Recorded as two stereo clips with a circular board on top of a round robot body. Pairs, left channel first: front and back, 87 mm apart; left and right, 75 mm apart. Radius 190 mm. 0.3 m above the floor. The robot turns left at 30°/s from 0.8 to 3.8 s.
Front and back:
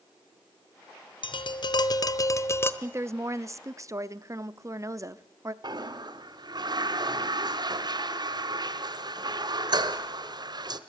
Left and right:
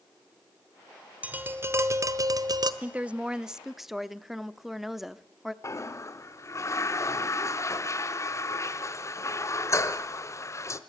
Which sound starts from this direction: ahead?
Tapping, at 1.2 s.